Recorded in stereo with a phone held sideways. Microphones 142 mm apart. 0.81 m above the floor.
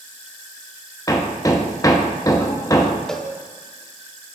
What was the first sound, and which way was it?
Hammering, 25° left (ahead or behind).